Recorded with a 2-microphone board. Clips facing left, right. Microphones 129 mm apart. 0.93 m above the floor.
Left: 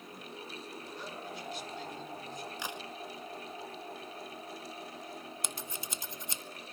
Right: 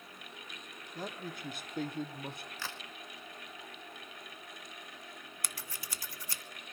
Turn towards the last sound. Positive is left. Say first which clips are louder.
# left 5 dB
turn(degrees=20)  # may be behind; listen again after turning